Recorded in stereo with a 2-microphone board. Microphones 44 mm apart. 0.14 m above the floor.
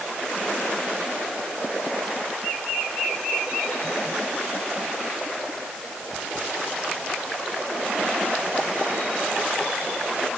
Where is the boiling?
No boiling in this recording.